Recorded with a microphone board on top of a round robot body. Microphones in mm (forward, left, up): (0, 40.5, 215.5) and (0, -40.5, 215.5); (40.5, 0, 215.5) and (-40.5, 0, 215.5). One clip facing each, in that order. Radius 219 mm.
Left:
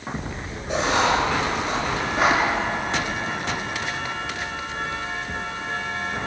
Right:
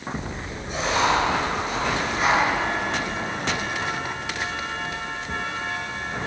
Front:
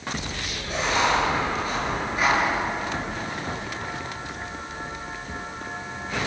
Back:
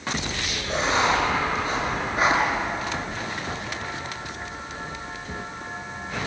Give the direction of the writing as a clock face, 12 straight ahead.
8 o'clock.